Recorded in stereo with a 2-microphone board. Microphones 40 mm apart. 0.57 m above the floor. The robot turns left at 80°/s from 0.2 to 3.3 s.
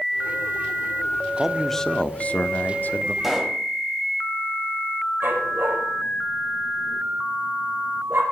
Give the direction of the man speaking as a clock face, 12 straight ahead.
5 o'clock.